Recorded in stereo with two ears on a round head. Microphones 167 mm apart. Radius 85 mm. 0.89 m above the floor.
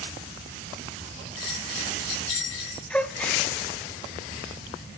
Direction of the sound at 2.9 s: 5° left (ahead or behind).